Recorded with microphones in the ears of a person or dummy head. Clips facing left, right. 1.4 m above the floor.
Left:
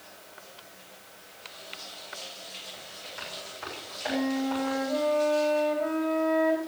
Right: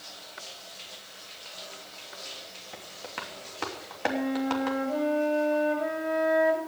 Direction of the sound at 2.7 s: 75° right (ahead or behind).